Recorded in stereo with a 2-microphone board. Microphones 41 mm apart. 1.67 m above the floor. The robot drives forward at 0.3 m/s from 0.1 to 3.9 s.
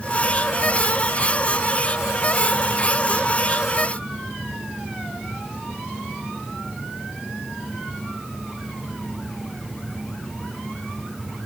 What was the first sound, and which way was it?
Only background noise.